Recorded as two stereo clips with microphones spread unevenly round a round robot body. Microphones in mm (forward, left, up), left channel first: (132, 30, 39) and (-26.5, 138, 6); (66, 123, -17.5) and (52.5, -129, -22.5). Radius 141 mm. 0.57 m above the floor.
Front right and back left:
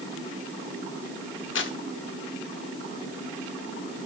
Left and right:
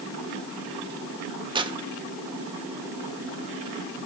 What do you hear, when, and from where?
1.6 s tearing paper: 25° right, 1.6 m